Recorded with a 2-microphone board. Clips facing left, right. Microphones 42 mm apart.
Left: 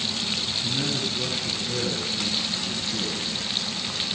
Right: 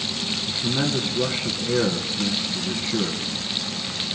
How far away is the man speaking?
About 2.5 m.